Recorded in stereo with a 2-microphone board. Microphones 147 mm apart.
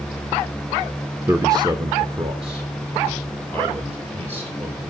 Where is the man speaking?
15° right (ahead or behind), 0.8 m; by 4.8 s 45° right (ahead or behind), 4 m.